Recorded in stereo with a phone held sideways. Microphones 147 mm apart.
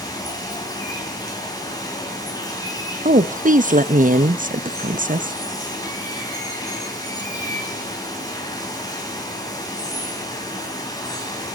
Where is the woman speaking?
65° right (ahead or behind), 1.0 m.